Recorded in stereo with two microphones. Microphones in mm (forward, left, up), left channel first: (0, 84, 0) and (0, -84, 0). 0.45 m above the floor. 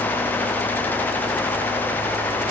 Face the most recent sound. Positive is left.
No sound to turn to.